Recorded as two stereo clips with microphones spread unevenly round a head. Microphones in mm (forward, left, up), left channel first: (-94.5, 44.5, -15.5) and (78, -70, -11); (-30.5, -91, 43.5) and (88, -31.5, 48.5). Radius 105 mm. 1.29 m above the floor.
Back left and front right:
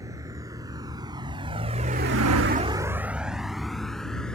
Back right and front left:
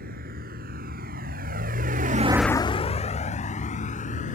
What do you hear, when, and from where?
0.0 s a vehicle: 40° left; by 4.3 s 125° right